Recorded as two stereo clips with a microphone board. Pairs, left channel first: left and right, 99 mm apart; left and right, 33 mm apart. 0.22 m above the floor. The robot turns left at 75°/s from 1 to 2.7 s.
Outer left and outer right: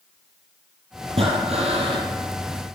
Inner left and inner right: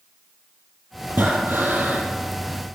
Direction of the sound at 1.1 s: 60° right.